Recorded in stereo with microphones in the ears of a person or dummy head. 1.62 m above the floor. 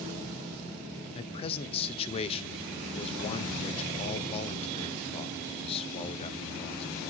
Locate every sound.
1.1 s a man speaking: 35° left (ahead or behind), 0.8 m